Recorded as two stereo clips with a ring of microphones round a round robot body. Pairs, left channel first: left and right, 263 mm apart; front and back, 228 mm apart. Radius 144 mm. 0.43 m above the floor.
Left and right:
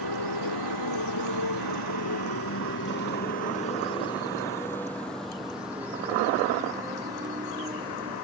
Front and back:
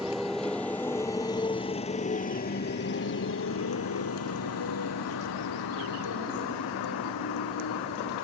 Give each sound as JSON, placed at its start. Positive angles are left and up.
{"t": 0.0, "sound": "a motorcycle", "azimuth_deg": 90}